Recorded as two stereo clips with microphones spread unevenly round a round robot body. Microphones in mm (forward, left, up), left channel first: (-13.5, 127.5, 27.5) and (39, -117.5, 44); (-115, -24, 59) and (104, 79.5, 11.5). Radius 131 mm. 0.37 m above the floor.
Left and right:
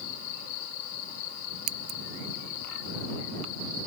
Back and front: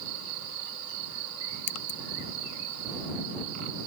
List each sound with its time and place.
1.7 s scissors: 110° right